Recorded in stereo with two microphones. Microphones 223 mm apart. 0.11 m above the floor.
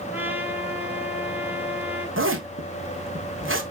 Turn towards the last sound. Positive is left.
turn(degrees=-65)  # may be behind; listen again after turning